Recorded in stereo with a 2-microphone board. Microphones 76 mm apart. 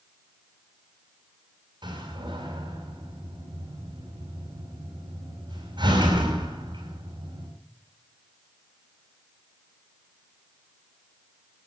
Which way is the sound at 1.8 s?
90° right.